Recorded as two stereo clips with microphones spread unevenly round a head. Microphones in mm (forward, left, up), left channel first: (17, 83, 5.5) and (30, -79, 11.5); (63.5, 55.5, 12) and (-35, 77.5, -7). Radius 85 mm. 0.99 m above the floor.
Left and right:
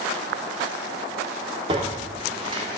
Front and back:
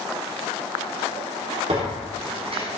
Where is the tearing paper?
145° right, 3 m.